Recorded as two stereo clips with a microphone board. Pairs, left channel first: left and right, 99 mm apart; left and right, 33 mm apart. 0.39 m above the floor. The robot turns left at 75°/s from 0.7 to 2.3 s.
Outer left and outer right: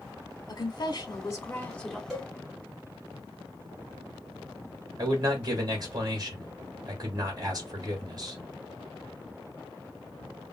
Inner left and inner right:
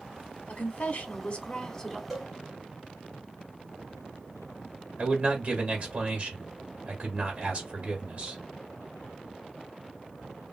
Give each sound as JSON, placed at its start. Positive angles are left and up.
{"t": 0.5, "sound": "a woman speaking", "azimuth_deg": 95, "distance_m": 1.0}
{"t": 2.1, "sound": "a cowbell", "side_deg": 0, "distance_m": 1.3}
{"t": 5.0, "sound": "a man speaking", "side_deg": -45, "distance_m": 1.3}